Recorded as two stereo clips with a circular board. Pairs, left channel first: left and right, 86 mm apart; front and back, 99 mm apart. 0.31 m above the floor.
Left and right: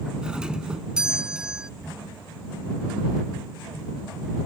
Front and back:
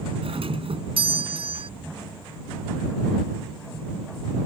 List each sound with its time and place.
0.2 s a doorbell: 170° right